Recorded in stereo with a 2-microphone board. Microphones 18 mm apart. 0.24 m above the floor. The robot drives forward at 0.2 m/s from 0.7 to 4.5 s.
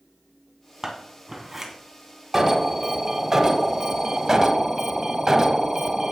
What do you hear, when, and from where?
0.8 s scissors: 15° right (ahead or behind), 2.5 m
2.3 s an alarm: 25° right (ahead or behind), 1.1 m; by 6.1 s 30° right (ahead or behind), 0.9 m